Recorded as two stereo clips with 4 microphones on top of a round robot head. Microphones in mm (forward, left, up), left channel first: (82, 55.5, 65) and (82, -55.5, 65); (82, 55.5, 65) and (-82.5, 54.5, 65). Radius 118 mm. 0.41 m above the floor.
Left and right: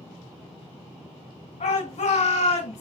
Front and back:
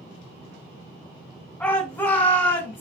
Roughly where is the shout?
Left.